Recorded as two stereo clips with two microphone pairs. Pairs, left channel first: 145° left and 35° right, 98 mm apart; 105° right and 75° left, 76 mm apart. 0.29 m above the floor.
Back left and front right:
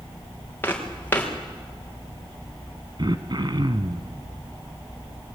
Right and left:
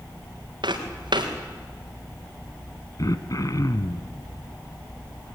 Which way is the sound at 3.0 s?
70° right.